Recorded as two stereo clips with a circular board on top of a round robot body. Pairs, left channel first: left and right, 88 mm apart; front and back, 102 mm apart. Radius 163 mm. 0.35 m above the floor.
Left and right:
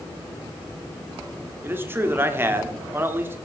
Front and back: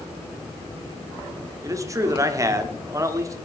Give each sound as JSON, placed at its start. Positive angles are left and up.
{"t": 1.6, "sound": "a man speaking", "azimuth_deg": -140, "distance_m": 1.4}